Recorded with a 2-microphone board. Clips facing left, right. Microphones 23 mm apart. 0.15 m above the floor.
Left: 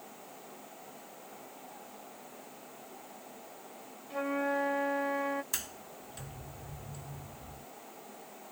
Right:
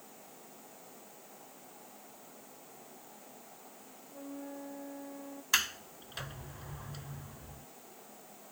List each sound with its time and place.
4.1 s a flute: 70° left (ahead or behind)
5.5 s a sliding door: 45° right (ahead or behind)